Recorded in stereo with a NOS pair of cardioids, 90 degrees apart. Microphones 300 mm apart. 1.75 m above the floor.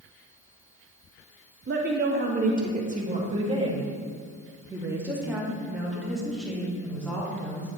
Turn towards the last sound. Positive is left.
turn(degrees=5)